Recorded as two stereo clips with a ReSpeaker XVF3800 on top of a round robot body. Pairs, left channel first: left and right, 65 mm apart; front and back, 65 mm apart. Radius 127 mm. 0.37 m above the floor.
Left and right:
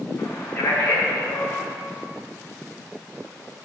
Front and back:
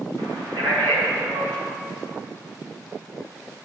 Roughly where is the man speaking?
Behind.